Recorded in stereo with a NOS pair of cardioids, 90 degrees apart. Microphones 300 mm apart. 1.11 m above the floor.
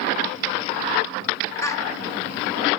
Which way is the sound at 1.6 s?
10° left.